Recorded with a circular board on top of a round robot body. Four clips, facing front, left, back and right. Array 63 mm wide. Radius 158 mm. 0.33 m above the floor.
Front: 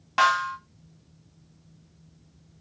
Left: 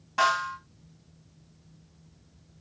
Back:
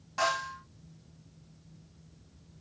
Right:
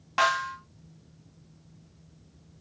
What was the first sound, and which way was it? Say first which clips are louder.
A snare drum: even, front 9 dB; 30° right.